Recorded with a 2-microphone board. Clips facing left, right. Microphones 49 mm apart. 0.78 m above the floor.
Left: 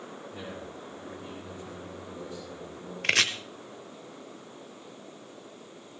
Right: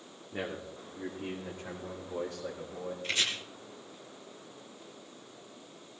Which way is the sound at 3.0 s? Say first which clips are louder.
Left 8 dB; 75° left (ahead or behind).